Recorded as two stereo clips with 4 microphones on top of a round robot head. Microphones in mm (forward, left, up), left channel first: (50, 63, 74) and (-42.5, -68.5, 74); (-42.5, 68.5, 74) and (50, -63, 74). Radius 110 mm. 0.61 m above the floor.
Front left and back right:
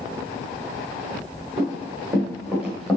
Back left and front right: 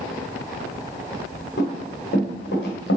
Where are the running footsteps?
160° left, 3.5 m; by 3.0 s 145° left, 3 m.